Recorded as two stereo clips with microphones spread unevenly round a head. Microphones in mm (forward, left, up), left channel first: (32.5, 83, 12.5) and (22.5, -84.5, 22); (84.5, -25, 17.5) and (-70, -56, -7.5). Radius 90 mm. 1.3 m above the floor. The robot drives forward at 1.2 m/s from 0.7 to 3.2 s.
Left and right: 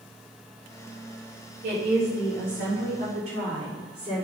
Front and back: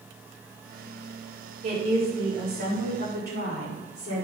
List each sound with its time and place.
1.6 s a woman speaking: 135° right, 3.5 m; by 4.2 s 150° right, 5 m